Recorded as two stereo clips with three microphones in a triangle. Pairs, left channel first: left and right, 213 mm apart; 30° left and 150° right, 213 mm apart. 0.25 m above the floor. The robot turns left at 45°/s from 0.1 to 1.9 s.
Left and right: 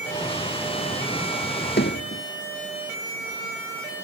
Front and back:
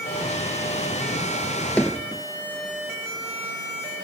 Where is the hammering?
115° left; by 2.2 s 110° left.